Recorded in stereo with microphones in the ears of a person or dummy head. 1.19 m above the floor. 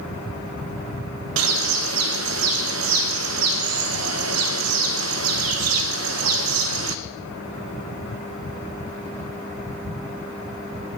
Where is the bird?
70° right (ahead or behind), 0.7 m.